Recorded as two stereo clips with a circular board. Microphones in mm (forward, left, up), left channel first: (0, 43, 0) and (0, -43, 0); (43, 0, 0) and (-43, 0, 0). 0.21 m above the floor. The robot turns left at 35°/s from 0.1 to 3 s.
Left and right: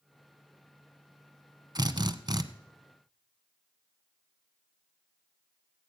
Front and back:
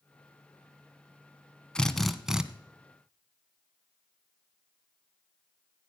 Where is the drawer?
I don't hear a drawer.